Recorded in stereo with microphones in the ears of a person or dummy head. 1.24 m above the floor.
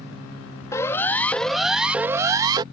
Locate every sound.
0.7 s a siren: 15° left (ahead or behind); by 2.6 s 20° right (ahead or behind)